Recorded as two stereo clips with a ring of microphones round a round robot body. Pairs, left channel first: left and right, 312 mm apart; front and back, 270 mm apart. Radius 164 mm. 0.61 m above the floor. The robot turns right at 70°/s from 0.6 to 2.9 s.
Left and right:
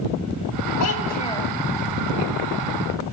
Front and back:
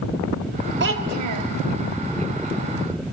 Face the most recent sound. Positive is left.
turn(degrees=-80)